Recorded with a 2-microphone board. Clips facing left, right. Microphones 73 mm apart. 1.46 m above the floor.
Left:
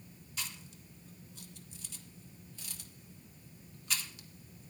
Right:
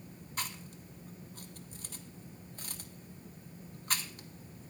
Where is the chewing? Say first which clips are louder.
Right 4 dB; 45° right (ahead or behind), 1.2 m.